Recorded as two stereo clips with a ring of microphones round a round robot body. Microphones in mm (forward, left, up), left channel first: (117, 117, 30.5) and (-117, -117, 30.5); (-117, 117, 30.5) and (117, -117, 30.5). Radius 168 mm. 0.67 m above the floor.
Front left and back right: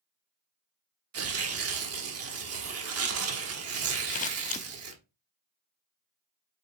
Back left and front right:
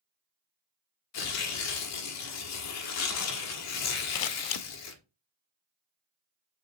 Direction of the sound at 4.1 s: 115° left.